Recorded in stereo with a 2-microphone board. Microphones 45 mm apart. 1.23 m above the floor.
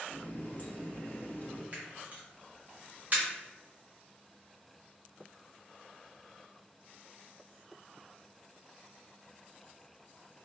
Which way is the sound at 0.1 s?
35° left (ahead or behind).